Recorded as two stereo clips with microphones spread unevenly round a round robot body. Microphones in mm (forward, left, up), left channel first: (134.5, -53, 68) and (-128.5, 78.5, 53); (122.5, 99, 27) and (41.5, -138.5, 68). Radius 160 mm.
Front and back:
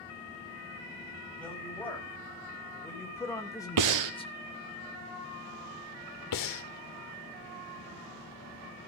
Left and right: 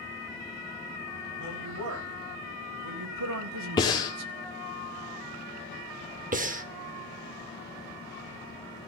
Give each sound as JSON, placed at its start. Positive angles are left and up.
{"t": 1.4, "sound": "a woman speaking", "azimuth_deg": -115, "distance_m": 5.0}
{"t": 3.8, "sound": "breathing", "azimuth_deg": 145, "distance_m": 1.3}
{"t": 6.3, "sound": "breathing", "azimuth_deg": -50, "distance_m": 1.3}